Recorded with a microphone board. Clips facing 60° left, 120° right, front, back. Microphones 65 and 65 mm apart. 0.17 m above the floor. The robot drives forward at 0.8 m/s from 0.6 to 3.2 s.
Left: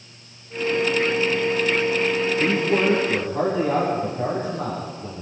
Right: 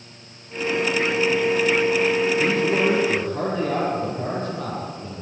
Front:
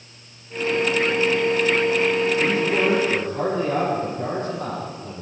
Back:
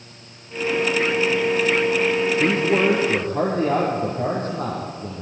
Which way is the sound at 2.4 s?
135° left.